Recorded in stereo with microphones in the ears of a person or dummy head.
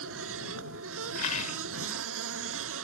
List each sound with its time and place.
0.0 s a machine running: 80° right
1.1 s a rattle: 40° left (ahead or behind)